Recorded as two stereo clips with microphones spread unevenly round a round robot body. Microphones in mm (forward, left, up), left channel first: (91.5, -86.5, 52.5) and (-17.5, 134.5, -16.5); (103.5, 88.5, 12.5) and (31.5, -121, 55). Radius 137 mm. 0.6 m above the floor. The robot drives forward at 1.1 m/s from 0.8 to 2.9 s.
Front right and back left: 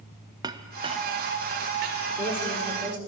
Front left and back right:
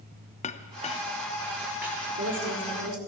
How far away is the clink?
About 0.5 m.